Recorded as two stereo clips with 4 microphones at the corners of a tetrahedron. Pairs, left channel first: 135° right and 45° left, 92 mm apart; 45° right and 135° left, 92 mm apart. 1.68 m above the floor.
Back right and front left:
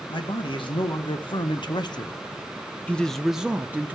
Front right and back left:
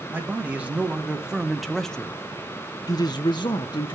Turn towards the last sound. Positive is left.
turn(degrees=-20)